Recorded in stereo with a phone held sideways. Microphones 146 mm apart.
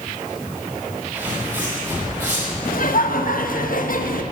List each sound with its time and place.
1.1 s footsteps: 15° right (ahead or behind), 6 m
2.6 s laughter: 70° left (ahead or behind), 1.2 m